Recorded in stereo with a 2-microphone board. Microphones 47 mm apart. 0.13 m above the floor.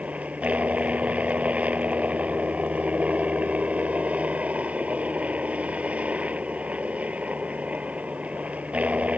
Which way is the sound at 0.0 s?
30° right (ahead or behind).